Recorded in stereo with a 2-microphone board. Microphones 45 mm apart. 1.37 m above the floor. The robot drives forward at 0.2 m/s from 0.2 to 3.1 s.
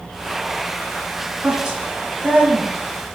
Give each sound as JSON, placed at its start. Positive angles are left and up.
{"t": 1.4, "sound": "a woman speaking", "side_deg": -30, "distance_m": 1.5}